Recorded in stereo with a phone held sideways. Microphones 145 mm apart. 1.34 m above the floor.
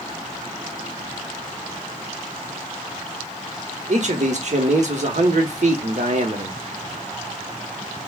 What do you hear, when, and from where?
3.9 s a man speaking: 55° right (ahead or behind), 1.0 m